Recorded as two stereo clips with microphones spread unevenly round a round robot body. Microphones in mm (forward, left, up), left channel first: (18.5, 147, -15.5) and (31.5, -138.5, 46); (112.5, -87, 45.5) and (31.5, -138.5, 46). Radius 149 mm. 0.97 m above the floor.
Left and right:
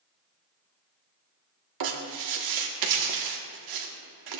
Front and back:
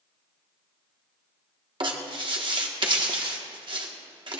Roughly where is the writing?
Right.